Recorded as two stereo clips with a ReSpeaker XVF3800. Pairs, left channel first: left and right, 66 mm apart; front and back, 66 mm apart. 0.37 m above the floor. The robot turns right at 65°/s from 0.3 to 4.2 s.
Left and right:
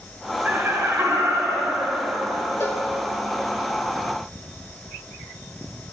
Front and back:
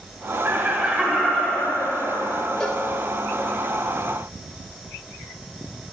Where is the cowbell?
75° left, 0.7 m; by 2.9 s 90° left, 0.7 m.